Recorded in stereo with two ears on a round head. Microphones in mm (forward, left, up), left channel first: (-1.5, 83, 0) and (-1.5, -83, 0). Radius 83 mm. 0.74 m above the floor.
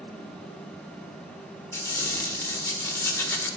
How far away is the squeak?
About 1.2 m.